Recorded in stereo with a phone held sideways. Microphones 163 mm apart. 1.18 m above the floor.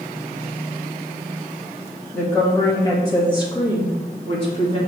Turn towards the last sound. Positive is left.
turn(degrees=35)  # may be behind; listen again after turning